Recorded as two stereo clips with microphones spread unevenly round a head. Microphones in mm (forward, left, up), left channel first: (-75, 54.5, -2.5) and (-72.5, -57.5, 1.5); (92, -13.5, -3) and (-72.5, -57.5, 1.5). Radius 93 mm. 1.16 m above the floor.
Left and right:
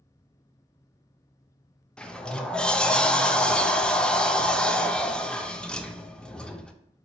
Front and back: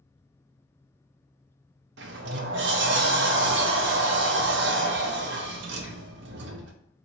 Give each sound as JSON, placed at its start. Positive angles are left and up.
{"t": 2.0, "sound": "a sliding door", "azimuth_deg": 175, "distance_m": 0.5}